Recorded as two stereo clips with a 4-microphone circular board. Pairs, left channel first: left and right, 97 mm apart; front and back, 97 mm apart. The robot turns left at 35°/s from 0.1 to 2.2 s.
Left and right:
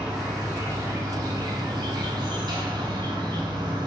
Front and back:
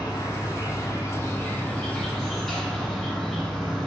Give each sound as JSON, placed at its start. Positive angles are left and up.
{"t": 0.0, "sound": "an insect", "azimuth_deg": -10, "distance_m": 1.0}